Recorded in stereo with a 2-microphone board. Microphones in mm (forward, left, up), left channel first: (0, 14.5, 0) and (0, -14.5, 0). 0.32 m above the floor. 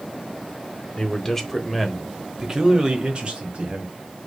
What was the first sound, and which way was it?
A man speaking, 25° left (ahead or behind).